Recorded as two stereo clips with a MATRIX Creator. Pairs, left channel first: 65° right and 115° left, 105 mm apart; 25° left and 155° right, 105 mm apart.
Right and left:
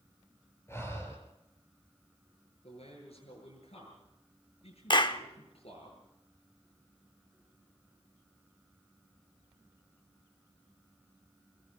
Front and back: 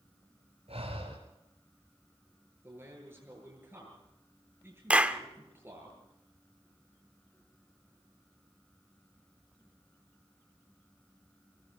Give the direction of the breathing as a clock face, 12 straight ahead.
4 o'clock.